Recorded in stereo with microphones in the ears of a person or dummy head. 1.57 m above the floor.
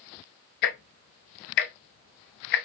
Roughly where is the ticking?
Left.